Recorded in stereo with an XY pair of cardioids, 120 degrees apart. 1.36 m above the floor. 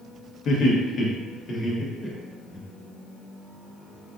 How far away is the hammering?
I don't hear hammering.